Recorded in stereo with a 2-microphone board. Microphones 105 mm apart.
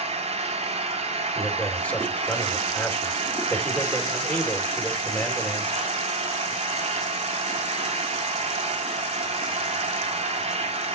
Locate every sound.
0.0 s an engine running: 70° right (ahead or behind), 2.5 m
1.4 s a man speaking: 15° left (ahead or behind), 3 m